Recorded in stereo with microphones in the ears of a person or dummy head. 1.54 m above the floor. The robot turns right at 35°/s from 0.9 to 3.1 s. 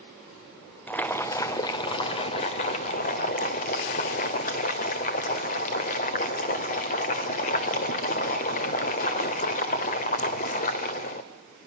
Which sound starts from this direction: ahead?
Boiling, at 0.9 s.